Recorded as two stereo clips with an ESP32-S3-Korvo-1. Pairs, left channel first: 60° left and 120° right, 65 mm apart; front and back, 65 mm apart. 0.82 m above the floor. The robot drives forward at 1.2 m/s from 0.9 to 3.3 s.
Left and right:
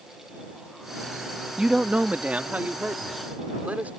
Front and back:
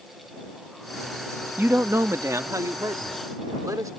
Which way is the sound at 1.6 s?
170° left.